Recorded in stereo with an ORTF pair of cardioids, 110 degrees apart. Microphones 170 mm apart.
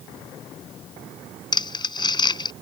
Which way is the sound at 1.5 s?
25° left.